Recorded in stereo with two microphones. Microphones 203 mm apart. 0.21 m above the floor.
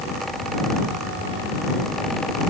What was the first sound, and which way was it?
Only background noise.